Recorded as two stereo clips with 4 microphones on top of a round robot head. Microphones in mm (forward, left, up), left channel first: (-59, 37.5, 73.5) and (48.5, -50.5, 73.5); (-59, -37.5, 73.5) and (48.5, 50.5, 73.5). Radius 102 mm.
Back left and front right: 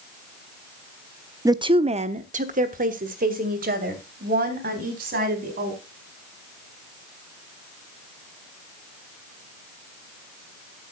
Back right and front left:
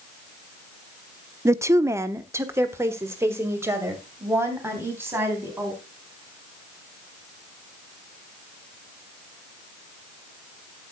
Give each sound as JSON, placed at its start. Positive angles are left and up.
{"t": 1.4, "sound": "a woman speaking", "azimuth_deg": -5, "distance_m": 0.7}